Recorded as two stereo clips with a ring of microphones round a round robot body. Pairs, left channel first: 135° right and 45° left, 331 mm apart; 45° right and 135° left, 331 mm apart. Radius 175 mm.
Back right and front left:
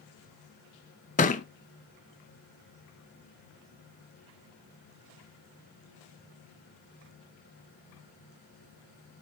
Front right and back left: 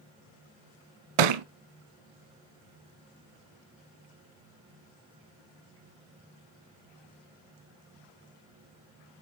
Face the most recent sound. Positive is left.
turn(degrees=155)